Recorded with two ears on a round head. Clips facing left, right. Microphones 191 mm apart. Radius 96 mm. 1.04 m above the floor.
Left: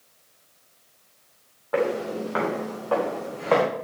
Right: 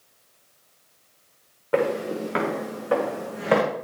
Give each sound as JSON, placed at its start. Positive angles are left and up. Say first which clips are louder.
{"t": 1.7, "sound": "footsteps", "louder": "right 1 dB", "side_deg": -35, "distance_m": 5.0}